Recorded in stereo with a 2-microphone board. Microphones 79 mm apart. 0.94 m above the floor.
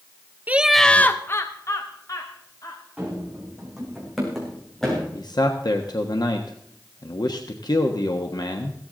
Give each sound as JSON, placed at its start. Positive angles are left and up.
{"t": 0.5, "sound": "laughter", "side_deg": -20, "distance_m": 0.6}
{"t": 3.0, "sound": "running footsteps", "side_deg": -10, "distance_m": 4.0}
{"t": 5.2, "sound": "a man speaking", "side_deg": 60, "distance_m": 1.2}